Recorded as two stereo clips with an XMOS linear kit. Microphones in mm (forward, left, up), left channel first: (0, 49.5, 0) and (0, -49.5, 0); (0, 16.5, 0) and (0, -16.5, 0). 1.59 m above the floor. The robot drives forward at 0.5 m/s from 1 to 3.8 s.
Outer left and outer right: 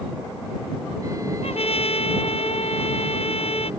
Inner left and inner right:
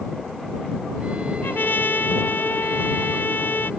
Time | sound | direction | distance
1.4 | a trumpet | 85° left | ?